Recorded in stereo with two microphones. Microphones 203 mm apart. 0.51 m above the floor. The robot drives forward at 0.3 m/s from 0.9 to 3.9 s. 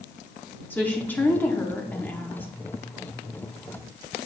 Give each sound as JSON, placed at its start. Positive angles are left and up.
{"t": 0.7, "sound": "a woman speaking", "side_deg": 10, "distance_m": 0.8}